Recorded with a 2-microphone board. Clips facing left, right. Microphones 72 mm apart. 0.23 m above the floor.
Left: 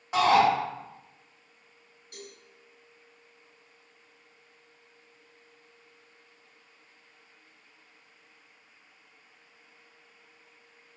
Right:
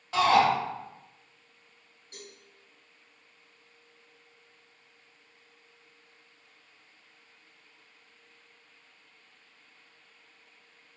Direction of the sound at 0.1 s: 15° left (ahead or behind).